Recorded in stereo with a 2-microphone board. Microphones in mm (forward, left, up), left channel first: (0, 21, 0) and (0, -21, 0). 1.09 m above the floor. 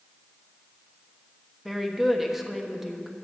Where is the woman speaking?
5° right (ahead or behind), 1.2 m.